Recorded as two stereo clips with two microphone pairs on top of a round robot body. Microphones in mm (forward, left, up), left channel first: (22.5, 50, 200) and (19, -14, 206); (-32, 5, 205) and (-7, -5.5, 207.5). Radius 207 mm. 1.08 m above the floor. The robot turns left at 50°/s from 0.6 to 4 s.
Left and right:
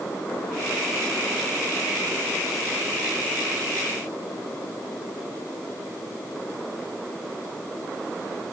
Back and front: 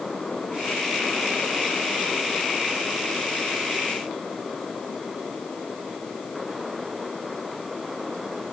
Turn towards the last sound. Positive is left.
No sound to turn to.